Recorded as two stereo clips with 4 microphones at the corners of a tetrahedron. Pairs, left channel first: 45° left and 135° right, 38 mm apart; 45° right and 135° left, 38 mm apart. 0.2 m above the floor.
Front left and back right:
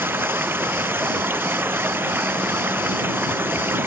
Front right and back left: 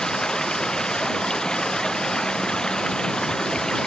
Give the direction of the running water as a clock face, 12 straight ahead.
4 o'clock.